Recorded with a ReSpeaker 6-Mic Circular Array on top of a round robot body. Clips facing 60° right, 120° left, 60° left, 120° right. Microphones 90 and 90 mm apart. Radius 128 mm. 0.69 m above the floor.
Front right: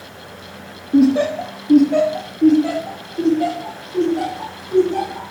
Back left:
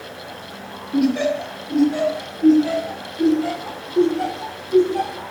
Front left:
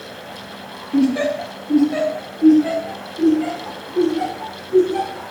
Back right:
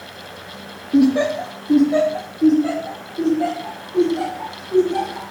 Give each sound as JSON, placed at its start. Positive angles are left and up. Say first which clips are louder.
{"t": 0.9, "sound": "laughter", "louder": "front right 5 dB, back right 2 dB", "azimuth_deg": -65, "distance_m": 1.2}